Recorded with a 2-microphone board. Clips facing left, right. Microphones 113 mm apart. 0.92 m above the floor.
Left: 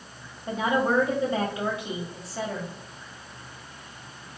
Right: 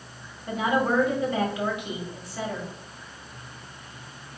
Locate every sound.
0.5 s a woman speaking: 30° left (ahead or behind), 1.7 m